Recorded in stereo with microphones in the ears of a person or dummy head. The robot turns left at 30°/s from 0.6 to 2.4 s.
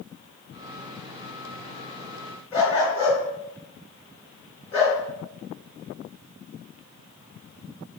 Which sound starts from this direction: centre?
A dog barking, at 2.5 s.